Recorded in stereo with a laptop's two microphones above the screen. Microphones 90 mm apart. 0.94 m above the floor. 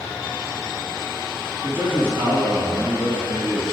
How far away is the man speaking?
About 2.5 m.